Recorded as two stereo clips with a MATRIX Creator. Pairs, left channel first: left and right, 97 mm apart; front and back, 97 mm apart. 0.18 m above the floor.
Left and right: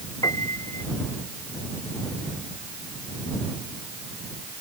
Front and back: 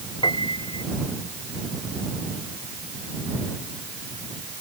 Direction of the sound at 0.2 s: 35° left.